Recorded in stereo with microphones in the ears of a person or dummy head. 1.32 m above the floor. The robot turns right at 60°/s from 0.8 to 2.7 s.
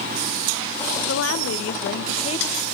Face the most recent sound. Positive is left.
turn(degrees=175)